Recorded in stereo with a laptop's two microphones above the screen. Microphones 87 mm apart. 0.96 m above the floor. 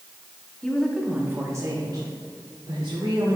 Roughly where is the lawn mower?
I don't hear a lawn mower.